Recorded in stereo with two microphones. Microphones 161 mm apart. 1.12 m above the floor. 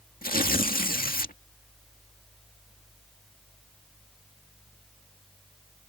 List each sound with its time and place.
0.2 s tearing paper: 60° left (ahead or behind)